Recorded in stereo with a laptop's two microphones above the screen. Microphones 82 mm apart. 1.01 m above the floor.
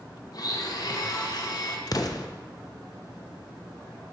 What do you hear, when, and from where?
0.3 s a blender: 50° left (ahead or behind), 0.9 m
1.9 s an explosion: 50° left (ahead or behind), 0.6 m